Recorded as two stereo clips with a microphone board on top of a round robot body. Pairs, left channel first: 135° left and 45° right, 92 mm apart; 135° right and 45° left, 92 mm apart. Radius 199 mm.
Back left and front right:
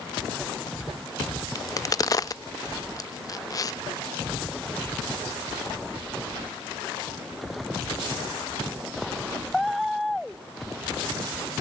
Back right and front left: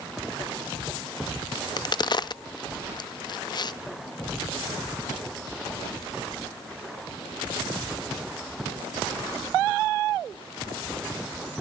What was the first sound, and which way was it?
A crack, 175° right.